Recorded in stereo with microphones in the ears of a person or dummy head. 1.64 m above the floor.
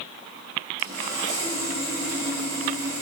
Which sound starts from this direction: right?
Sawing, at 0.8 s.